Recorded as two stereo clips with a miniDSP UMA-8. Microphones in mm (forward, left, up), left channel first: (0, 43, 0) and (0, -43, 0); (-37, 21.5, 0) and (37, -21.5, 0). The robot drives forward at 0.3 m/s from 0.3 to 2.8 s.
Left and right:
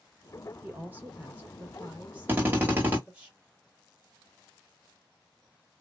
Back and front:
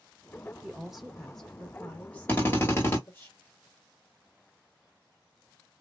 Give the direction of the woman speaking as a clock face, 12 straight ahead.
3 o'clock.